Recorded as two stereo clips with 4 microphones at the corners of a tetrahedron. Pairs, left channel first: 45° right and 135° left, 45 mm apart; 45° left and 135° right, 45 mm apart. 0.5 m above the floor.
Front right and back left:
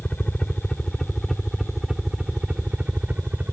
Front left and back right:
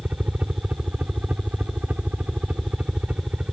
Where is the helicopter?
105° right; by 3.5 s 170° left.